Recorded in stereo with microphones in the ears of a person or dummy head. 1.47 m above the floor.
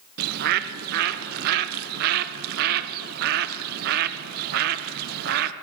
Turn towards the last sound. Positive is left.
turn(degrees=-50)  # may be behind; listen again after turning